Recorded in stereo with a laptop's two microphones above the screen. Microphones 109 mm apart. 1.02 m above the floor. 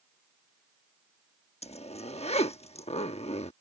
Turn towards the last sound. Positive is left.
turn(degrees=75)  # may be behind; listen again after turning